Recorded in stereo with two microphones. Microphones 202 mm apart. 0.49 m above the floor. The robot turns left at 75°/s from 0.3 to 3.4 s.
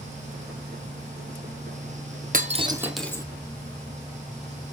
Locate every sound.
2.3 s breaking glass: 45° right (ahead or behind), 1.1 m; by 3.2 s 20° left (ahead or behind), 1.1 m